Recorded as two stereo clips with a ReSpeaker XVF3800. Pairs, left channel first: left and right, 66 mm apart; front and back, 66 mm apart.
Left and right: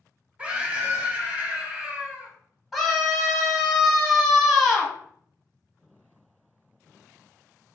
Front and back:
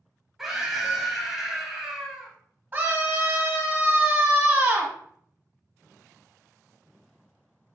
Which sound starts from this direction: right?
A scream, at 0.4 s.